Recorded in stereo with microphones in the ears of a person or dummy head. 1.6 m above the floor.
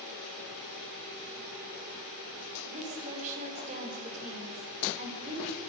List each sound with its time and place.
2.6 s a woman speaking: 40° right (ahead or behind), 7 m